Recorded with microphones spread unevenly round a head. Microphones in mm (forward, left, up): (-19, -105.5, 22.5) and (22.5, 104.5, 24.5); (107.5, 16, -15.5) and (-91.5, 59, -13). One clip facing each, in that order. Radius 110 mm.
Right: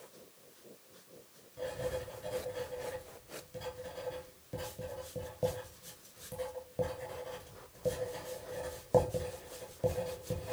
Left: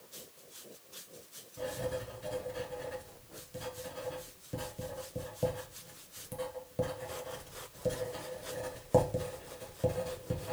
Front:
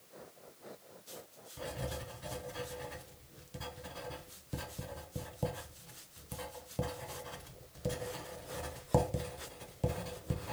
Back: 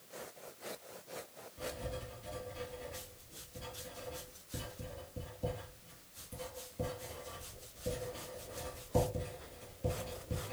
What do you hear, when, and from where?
1.6 s writing: 5° right, 1.0 m